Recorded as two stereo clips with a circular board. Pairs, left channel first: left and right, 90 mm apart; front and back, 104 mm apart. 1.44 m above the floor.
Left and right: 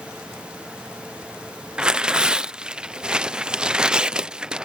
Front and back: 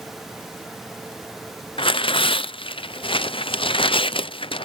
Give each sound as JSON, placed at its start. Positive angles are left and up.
{"t": 1.8, "sound": "tearing paper", "azimuth_deg": -10}